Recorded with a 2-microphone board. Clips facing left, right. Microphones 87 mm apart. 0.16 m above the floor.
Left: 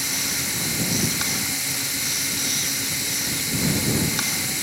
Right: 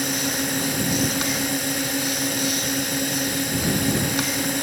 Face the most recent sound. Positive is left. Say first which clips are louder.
# right 6 dB
turn(degrees=-50)  # may be behind; listen again after turning